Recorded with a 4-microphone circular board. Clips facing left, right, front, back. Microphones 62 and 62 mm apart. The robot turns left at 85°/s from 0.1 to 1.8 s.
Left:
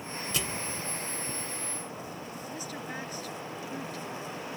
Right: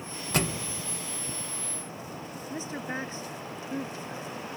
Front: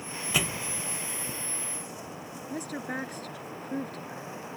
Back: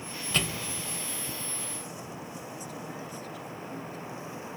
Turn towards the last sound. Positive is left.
turn(degrees=-25)